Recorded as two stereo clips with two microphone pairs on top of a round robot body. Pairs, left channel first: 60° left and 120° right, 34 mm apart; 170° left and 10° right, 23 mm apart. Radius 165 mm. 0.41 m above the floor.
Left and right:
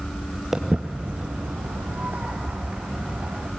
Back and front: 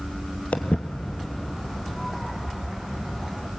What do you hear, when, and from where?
0.5 s footsteps: 160° left, 0.6 m; by 3.5 s 90° right, 3 m